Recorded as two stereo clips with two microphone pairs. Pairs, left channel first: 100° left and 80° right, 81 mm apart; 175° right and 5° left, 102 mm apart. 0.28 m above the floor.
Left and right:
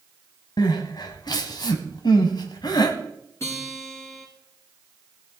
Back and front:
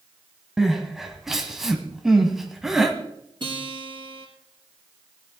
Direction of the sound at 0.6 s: 95° left.